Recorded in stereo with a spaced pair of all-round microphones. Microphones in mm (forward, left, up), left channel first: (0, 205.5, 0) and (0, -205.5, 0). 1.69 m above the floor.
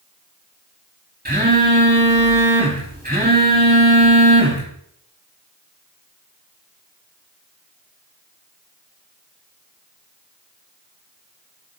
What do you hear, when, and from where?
1.2 s a phone buzzing: 20° right (ahead or behind), 3.5 m